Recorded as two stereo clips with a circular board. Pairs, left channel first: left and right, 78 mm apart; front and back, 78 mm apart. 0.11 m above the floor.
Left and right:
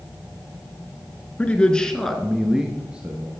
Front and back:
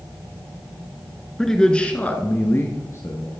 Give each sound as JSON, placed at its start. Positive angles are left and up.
{"t": 1.4, "sound": "a man speaking", "azimuth_deg": 75, "distance_m": 1.1}